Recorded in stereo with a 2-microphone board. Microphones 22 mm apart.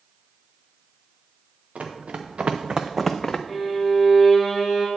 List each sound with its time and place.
1.8 s running footsteps: 80° right, 1.6 m; by 3.4 s 25° left (ahead or behind), 0.8 m
3.5 s a violin: 10° right (ahead or behind), 1.8 m